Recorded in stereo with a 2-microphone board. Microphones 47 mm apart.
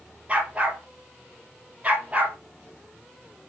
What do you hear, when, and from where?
0.3 s a dog barking: 35° right (ahead or behind), 3 m